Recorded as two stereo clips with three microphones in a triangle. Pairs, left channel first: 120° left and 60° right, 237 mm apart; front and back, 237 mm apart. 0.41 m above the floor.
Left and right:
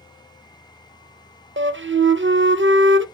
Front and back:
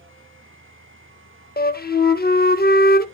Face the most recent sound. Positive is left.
turn(degrees=-40)